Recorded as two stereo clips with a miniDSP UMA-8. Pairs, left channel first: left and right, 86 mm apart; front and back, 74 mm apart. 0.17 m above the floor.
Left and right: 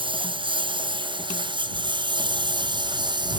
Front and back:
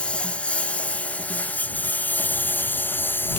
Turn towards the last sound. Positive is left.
turn(degrees=-65)